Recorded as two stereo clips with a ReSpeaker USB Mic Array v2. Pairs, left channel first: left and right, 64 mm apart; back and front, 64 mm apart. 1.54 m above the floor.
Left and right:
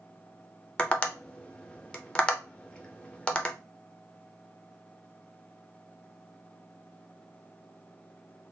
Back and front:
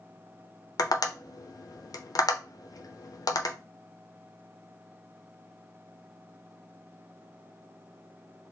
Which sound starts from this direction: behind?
Tapping, at 0.8 s.